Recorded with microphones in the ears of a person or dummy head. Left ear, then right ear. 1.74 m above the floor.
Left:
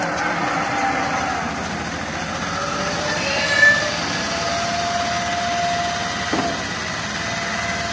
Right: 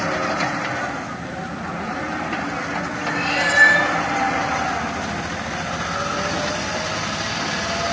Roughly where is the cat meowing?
Left.